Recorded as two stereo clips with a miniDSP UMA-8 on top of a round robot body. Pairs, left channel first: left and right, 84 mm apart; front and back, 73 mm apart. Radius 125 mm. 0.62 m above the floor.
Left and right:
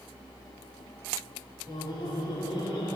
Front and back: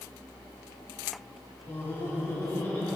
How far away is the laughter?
About 2 m.